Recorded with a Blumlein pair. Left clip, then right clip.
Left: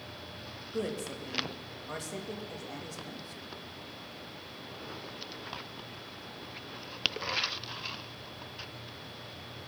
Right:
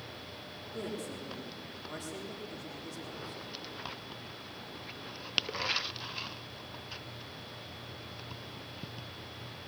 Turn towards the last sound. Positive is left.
turn(degrees=30)